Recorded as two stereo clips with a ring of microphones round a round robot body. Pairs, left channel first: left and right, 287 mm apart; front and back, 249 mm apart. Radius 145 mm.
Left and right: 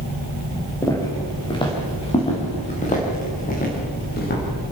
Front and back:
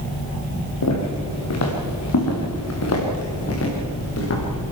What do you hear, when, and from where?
0.8 s footsteps: 10° left, 4 m; by 4.7 s 30° left, 5.5 m